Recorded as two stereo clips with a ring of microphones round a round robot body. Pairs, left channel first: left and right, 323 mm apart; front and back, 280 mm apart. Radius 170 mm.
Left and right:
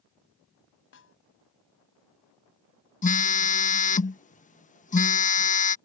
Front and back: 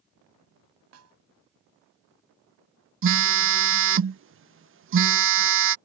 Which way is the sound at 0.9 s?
145° left.